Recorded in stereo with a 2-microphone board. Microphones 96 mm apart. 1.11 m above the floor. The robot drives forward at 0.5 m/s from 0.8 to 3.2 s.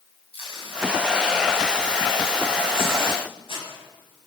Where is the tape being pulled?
70° left (ahead or behind), 9.5 m; by 3.7 s 65° left (ahead or behind), 10 m.